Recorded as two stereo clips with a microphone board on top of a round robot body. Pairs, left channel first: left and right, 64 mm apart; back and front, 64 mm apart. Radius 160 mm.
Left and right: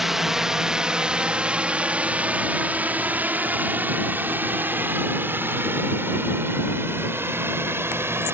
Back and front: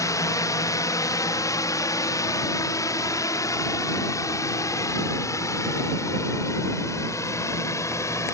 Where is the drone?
175° right; by 8.3 s 145° right.